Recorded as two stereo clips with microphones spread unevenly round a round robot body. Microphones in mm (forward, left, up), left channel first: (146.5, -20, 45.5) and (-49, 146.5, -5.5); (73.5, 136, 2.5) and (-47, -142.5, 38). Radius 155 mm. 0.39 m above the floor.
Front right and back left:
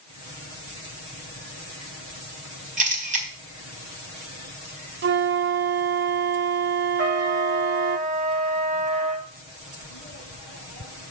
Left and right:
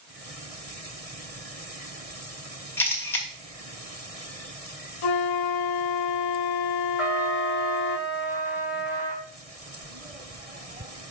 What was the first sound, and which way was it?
A camera shutter, 135° left.